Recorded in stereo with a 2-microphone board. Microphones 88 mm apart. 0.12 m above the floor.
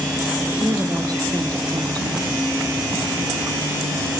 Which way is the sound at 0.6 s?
45° right (ahead or behind).